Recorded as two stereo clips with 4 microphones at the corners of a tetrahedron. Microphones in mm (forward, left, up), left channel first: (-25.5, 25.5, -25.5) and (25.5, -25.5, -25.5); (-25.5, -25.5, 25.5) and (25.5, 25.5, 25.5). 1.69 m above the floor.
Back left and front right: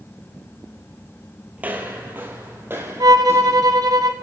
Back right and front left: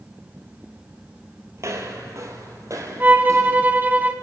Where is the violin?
20° right, 0.9 m.